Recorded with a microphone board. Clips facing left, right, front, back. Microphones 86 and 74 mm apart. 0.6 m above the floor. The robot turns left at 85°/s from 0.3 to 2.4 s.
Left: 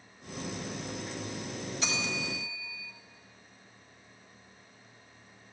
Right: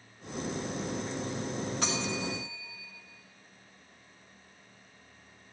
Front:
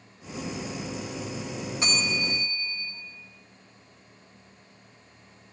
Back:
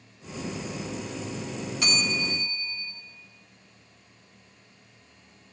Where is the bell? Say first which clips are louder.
Even, even; 60° right, 3 m; by 2.9 s 110° right, 3 m.